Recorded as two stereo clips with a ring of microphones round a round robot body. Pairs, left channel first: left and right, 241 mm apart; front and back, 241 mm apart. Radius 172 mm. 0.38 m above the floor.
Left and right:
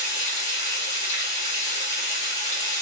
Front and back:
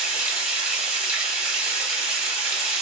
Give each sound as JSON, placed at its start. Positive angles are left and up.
{"t": 0.0, "sound": "running water", "azimuth_deg": 100, "distance_m": 1.2}